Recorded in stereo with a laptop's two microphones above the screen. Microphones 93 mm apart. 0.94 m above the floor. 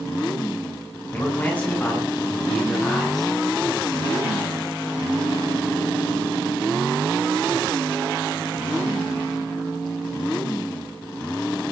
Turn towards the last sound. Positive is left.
turn(degrees=5)  # may be behind; listen again after turning